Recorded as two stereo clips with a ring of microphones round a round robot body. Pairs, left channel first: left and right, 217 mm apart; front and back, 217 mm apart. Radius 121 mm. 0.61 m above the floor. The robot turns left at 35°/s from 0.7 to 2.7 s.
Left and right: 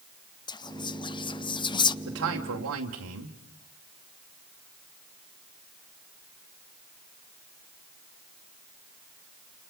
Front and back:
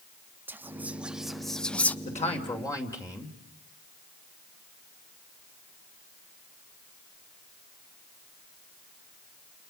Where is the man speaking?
55° right, 2.5 m; by 3.4 s 75° right, 2.5 m.